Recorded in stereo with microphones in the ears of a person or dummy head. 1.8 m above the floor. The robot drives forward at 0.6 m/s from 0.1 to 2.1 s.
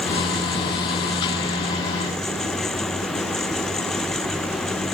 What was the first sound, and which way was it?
Only background noise.